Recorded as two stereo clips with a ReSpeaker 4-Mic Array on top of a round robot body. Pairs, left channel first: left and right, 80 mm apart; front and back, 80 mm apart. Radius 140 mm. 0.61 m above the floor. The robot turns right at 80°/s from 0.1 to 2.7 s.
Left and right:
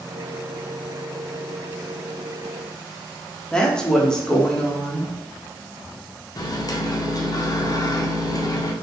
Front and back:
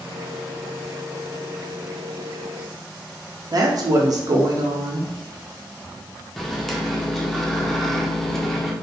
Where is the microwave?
85° left, 0.6 m.